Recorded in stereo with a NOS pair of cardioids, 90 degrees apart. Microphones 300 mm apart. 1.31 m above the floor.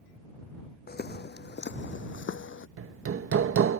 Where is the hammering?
45° right.